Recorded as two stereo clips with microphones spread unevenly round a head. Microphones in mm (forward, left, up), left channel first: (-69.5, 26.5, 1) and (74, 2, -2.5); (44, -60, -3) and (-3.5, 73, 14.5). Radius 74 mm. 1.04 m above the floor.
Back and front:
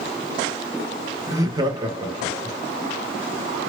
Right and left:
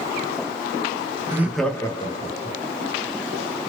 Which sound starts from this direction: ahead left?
Laughter, at 1.3 s.